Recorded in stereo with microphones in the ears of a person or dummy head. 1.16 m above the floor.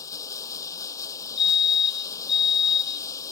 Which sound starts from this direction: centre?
Running water, at 0.0 s.